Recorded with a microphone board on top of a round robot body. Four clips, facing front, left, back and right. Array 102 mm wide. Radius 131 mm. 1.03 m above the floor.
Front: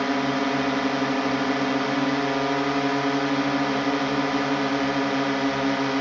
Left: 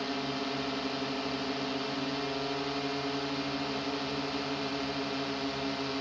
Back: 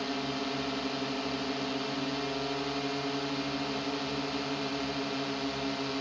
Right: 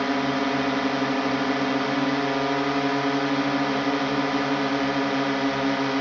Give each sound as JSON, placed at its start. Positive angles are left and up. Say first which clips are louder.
{"t": 0.0, "sound": "a drone", "louder": "right 11 dB, front 10 dB", "azimuth_deg": -40}